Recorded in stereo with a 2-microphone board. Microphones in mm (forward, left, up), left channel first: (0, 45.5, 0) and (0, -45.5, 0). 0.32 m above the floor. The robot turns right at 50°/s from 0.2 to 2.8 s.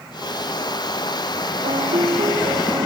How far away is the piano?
About 0.8 m.